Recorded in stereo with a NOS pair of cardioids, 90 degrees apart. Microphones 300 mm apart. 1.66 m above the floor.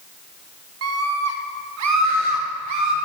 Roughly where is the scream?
Ahead right.